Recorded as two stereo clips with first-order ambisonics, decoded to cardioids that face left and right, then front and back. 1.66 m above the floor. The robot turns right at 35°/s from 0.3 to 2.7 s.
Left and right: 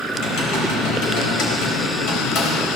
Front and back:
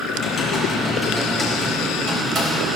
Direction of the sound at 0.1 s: 55° left.